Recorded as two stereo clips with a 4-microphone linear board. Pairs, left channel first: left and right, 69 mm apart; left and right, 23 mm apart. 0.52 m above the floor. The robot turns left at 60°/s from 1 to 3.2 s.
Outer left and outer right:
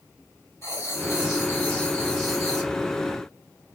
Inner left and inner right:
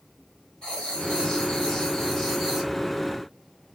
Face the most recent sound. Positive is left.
turn(degrees=-50)